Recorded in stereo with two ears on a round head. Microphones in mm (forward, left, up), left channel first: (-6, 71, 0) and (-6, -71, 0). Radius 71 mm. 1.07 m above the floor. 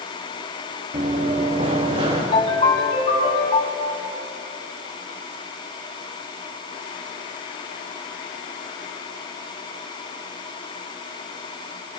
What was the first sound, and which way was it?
Running footsteps, 40° right (ahead or behind).